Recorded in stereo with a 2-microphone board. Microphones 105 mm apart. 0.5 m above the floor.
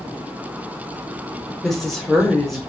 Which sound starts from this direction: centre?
A woman speaking, at 1.6 s.